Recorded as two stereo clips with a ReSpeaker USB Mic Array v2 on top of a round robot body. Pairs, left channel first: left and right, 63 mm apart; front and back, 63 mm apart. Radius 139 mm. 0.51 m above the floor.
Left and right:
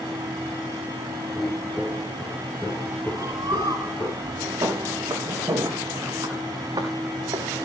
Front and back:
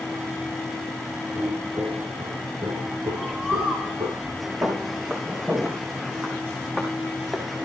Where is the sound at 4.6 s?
120° right, 7 m; by 7.5 s 95° right, 4.5 m.